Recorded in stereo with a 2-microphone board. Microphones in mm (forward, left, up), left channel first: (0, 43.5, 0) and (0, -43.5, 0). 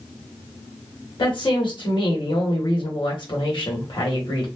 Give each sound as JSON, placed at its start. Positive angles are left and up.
{"t": 1.2, "sound": "a woman speaking", "side_deg": 60, "distance_m": 1.3}